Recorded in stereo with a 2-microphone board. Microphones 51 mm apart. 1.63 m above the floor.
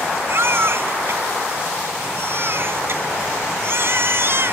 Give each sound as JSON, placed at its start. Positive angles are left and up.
{"t": 0.3, "sound": "a baby crying", "side_deg": -50}